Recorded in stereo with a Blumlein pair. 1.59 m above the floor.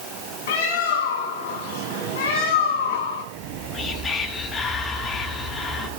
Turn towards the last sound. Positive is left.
turn(degrees=20)